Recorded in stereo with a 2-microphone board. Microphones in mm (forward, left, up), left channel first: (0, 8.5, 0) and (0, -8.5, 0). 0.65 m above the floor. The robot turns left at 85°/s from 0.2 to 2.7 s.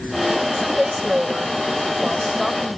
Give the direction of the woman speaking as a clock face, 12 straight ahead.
12 o'clock.